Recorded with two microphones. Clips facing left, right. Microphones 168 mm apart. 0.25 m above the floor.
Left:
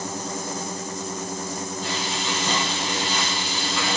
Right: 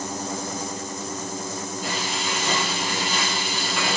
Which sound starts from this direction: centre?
Frying, at 1.8 s.